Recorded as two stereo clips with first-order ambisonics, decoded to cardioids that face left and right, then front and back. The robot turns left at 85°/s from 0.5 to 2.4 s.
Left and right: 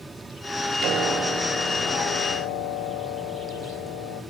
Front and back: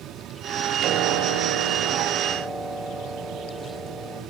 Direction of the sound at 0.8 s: 130° right.